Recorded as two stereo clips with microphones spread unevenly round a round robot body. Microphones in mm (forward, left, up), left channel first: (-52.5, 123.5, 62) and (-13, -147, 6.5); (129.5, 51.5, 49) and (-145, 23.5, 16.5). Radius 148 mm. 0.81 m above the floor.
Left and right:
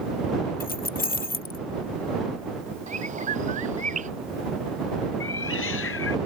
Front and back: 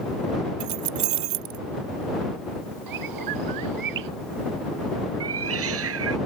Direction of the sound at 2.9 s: 150° right.